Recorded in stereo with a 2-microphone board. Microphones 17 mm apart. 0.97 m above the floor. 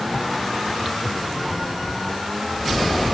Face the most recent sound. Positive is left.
No sound to turn to.